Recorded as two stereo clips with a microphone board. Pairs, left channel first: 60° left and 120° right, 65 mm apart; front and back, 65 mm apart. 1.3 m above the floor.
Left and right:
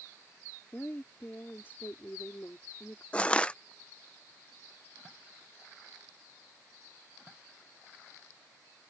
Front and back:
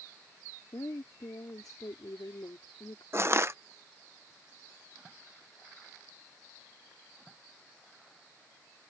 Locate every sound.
0.7 s a woman speaking: 5° left
3.1 s crushing: 130° left